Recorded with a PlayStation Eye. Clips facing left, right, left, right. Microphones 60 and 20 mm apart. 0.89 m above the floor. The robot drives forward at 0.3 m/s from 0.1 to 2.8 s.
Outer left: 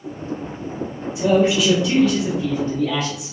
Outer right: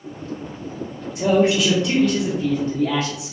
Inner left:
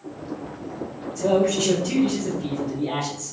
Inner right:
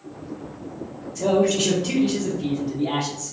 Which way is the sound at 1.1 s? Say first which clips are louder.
Even, inner right 1 dB; 50° right (ahead or behind).